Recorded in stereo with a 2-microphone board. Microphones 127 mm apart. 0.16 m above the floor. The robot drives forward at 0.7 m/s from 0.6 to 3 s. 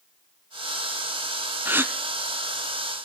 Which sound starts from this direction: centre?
A gasp, at 1.6 s.